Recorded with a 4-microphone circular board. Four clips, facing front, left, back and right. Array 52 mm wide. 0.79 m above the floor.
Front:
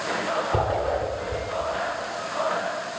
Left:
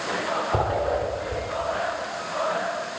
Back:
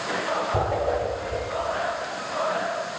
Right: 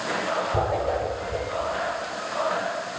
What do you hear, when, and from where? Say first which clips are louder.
0.5 s a whoosh: left 1 dB, even; 45° left, 10 m